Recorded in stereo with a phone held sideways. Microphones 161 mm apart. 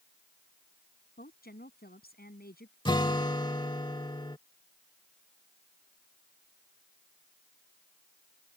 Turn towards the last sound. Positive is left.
turn(degrees=30)  # may be behind; listen again after turning